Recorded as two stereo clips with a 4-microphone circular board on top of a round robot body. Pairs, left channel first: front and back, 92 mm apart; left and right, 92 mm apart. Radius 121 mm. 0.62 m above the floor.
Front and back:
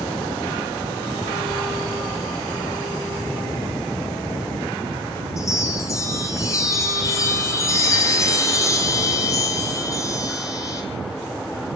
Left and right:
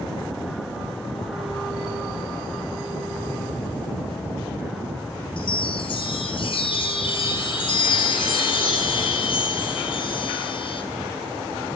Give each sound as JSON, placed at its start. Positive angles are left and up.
{"t": 5.4, "sound": "a chime", "azimuth_deg": 55, "distance_m": 2.5}